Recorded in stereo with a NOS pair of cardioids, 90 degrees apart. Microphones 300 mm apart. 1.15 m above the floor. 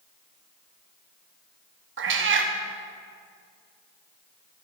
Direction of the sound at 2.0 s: 45° right.